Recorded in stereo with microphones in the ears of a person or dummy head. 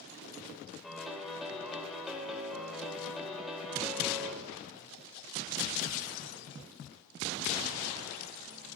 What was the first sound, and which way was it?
A piano, centre (ahead or behind).